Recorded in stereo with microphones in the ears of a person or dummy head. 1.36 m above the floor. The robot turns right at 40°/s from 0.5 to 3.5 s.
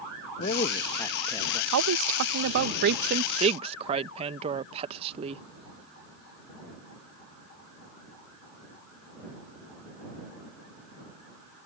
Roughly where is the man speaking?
Behind left.